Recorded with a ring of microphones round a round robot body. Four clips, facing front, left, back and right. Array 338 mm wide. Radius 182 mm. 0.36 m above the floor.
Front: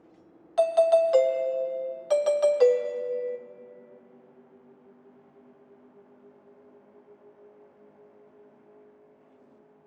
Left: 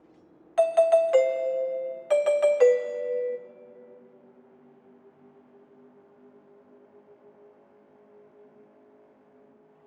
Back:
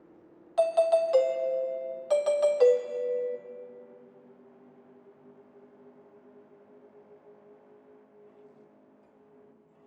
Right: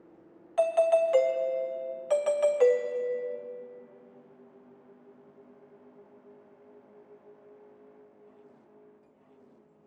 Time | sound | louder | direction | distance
0.6 | a doorbell | left 4 dB, front 3 dB | 65° left | 1.3 m